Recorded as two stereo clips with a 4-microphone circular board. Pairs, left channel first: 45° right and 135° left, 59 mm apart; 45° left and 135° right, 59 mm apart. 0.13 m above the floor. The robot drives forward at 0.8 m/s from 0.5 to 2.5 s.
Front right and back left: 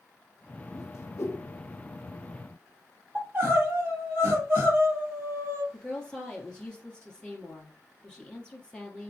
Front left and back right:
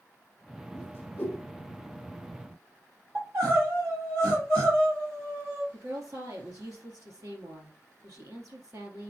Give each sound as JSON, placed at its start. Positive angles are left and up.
{"t": 0.7, "sound": "a whoosh", "azimuth_deg": -10, "distance_m": 2.0}
{"t": 3.1, "sound": "crying", "azimuth_deg": -170, "distance_m": 3.5}
{"t": 5.7, "sound": "a woman speaking", "azimuth_deg": -120, "distance_m": 2.5}